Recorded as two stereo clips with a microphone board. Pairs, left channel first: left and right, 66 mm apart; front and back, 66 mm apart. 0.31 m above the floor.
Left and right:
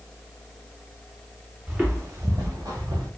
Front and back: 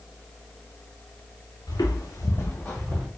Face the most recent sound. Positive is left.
turn(degrees=-85)